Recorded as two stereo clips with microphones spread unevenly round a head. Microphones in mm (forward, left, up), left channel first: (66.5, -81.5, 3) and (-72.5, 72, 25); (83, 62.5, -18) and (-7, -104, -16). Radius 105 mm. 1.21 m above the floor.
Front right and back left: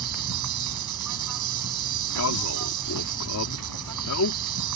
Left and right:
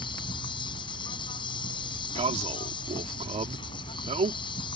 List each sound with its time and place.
0.0 s an insect: 130° left
2.1 s a man speaking: 60° right